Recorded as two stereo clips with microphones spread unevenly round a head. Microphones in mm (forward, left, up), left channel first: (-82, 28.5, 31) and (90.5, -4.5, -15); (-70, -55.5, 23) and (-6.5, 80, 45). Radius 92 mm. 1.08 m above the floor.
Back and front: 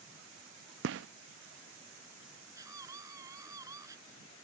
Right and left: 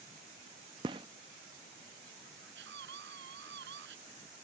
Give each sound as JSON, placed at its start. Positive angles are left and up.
{"t": 0.8, "sound": "a gunshot", "azimuth_deg": 10}
{"t": 2.5, "sound": "a scream", "azimuth_deg": 65}